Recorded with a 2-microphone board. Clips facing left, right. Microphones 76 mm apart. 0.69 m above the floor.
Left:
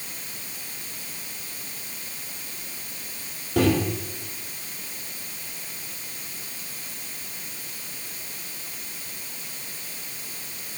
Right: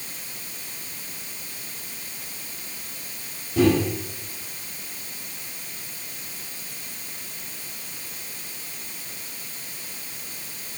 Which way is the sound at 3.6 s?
70° left (ahead or behind).